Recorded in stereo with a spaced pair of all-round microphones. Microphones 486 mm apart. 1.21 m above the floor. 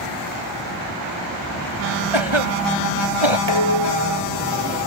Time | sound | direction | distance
2.1 | a cough | 80° right | ?
3.5 | dishes clattering | 60° right (ahead or behind) | ?